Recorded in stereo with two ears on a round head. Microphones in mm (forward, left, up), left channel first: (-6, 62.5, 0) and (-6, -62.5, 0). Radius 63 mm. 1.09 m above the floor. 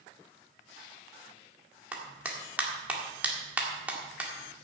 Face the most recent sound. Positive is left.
turn(degrees=-10)  # may be behind; listen again after turning